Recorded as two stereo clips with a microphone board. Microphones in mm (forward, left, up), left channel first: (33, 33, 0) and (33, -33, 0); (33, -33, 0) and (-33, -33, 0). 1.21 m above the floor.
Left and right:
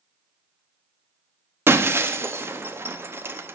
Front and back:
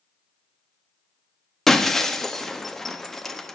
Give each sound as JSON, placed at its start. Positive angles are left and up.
{"t": 1.7, "sound": "breaking glass", "azimuth_deg": -80, "distance_m": 0.7}